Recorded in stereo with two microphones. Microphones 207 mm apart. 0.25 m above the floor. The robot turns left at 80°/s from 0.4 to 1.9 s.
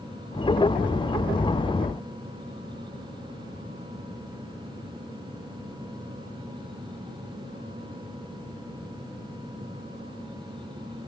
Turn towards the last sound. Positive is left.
No sound to turn to.